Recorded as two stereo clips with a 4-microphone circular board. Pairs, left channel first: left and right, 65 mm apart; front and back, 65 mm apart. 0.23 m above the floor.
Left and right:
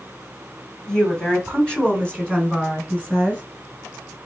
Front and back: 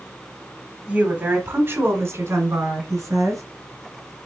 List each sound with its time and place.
0.9 s a woman speaking: 145° left, 1.1 m; by 3.4 s 165° left, 2 m